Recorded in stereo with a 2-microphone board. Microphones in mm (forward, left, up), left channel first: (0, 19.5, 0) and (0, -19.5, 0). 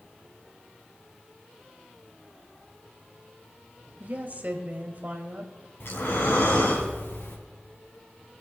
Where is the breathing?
70° left (ahead or behind), 3 m.